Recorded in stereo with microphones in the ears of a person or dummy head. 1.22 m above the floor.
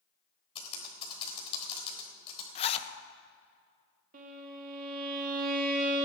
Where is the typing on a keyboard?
30° left (ahead or behind), 3.5 m.